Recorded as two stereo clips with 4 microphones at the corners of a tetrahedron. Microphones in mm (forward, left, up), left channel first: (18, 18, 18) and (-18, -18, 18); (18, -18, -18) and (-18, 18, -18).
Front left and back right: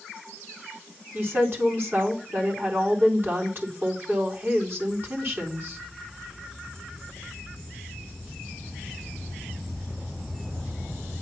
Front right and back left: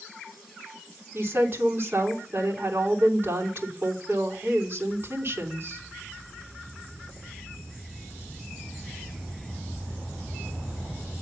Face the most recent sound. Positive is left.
turn(degrees=-175)